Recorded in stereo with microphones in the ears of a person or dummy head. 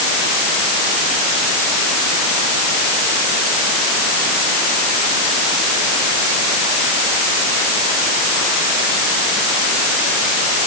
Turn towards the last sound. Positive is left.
No sound to turn to.